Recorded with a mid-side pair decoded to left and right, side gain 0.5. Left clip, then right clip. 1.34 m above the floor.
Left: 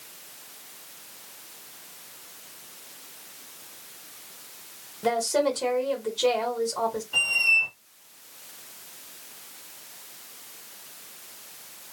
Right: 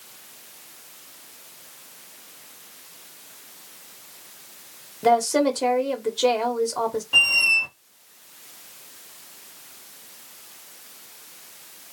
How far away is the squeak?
About 1.0 m.